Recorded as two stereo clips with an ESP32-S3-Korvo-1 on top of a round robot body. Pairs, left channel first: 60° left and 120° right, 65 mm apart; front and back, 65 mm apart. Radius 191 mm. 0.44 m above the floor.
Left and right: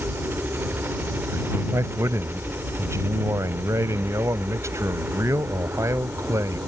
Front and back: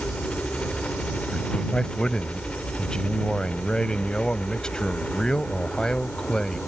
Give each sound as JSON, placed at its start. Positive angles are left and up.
{"t": 0.0, "sound": "a helicopter", "azimuth_deg": -70}
{"t": 1.3, "sound": "a man speaking", "azimuth_deg": -80}